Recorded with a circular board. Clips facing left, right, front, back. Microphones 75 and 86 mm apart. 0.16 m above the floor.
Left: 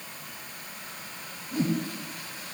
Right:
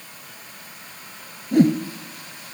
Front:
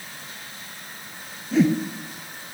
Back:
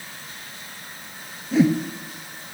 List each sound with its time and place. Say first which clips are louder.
1.5 s a whoosh: right 11 dB, back 1 dB; 90° right, 1.1 m